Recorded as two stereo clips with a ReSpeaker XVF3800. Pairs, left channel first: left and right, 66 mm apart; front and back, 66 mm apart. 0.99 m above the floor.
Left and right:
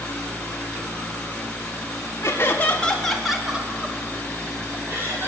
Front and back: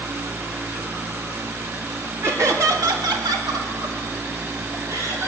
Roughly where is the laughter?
Behind left.